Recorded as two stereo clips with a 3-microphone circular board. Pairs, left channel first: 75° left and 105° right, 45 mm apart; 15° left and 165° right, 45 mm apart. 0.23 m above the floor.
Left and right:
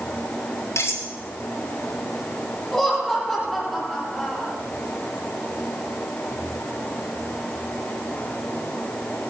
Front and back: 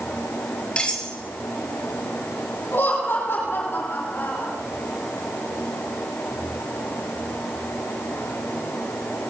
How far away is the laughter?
About 7.5 m.